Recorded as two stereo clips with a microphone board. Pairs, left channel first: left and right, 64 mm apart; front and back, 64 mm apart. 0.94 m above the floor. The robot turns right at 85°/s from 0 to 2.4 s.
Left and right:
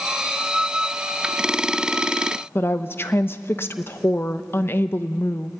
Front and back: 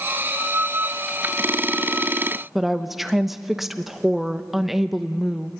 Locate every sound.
2.5 s a woman speaking: 95° left, 0.9 m